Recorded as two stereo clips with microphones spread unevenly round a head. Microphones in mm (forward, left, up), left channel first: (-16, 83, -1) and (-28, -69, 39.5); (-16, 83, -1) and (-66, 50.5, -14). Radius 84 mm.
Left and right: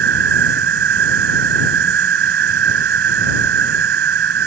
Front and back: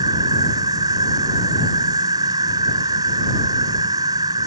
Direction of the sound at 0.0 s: 95° right.